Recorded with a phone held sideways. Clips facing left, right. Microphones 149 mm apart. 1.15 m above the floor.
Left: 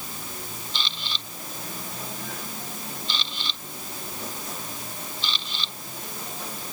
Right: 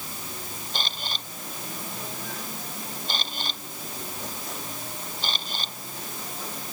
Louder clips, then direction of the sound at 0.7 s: Right 3 dB; 45° right (ahead or behind).